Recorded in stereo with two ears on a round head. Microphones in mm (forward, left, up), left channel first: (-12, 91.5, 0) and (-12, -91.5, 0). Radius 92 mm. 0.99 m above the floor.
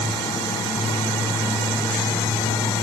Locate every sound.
Only background noise.